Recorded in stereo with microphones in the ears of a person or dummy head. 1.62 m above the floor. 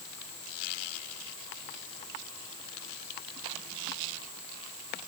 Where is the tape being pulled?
I don't hear tape being pulled.